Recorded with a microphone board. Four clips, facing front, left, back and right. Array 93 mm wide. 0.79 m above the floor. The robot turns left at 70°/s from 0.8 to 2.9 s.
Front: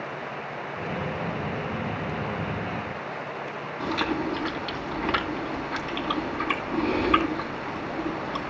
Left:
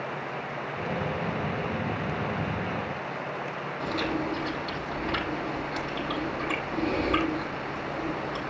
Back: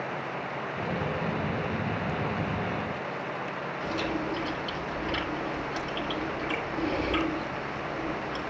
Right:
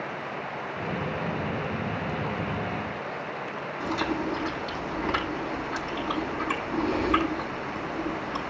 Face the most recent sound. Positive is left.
turn(degrees=-15)